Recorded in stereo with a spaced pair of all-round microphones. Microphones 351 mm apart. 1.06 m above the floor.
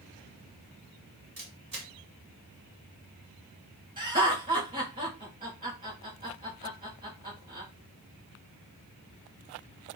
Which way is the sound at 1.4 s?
60° right (ahead or behind).